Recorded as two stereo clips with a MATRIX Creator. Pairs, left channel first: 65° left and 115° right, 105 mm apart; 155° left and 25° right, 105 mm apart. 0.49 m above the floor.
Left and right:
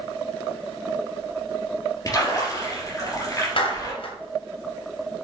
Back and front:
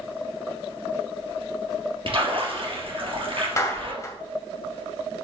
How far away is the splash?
About 3.5 m.